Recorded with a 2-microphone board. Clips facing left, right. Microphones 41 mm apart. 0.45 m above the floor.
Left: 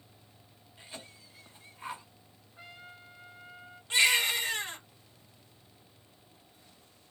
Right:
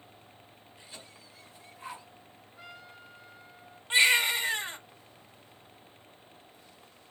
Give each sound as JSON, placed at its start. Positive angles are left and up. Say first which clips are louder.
{"t": 0.8, "sound": "a cough", "louder": "left 3 dB", "side_deg": 25, "distance_m": 1.5}
{"t": 2.6, "sound": "a trumpet", "louder": "even", "side_deg": 30, "distance_m": 1.1}
{"t": 3.9, "sound": "a baby crying", "louder": "right 2 dB", "side_deg": -25, "distance_m": 1.0}